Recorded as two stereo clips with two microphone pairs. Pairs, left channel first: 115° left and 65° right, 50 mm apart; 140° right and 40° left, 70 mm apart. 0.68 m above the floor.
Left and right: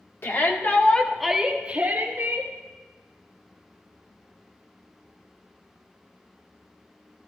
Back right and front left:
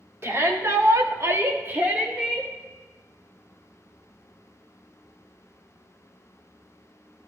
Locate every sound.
0.2 s a shout: 90° left, 2 m; by 2.5 s 35° right, 2.5 m